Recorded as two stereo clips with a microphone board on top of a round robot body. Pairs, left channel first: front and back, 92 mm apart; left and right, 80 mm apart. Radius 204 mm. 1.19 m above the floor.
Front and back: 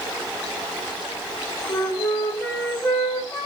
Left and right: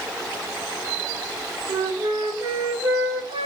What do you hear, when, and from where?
1.7 s a flute: 80° right, 0.7 m